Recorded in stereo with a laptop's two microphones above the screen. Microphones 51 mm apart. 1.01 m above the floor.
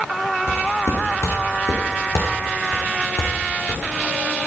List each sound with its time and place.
0.5 s footsteps: 60° left (ahead or behind), 3.5 m; by 3.8 s 65° left (ahead or behind), 4.5 m